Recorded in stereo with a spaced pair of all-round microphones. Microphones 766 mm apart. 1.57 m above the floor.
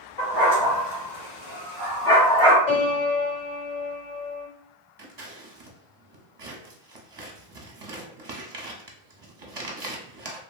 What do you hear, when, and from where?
0.2 s a dog barking: 55° left (ahead or behind), 1.8 m; by 2.6 s centre (ahead or behind), 1.1 m
2.7 s a piano: 45° left (ahead or behind), 1.7 m
5.0 s scissors: 40° right (ahead or behind), 0.6 m